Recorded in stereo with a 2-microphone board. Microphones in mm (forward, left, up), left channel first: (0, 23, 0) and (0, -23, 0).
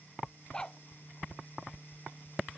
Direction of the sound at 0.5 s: 15° left (ahead or behind).